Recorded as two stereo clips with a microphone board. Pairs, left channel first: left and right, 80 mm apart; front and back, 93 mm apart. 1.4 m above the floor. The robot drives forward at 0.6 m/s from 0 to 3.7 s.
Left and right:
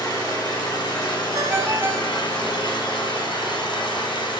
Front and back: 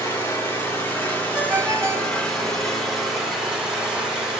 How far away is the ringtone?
About 0.9 m.